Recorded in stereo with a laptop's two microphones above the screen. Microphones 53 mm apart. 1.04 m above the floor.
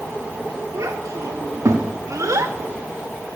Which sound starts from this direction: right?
A child speaking, at 0.7 s.